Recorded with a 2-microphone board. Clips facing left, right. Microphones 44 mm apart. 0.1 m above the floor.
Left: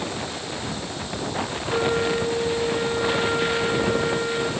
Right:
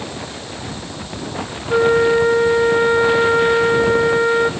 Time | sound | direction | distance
1.7 | a flute | 45° right (ahead or behind) | 2.5 m